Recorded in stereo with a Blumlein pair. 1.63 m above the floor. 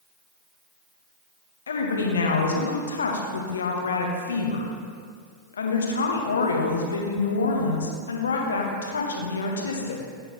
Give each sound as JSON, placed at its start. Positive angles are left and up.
{"t": 1.7, "sound": "a woman speaking", "azimuth_deg": 70, "distance_m": 1.1}